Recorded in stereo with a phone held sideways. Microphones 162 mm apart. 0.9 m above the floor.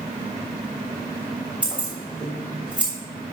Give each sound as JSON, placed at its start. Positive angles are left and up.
{"t": 1.6, "sound": "keys jangling", "side_deg": -5, "distance_m": 2.5}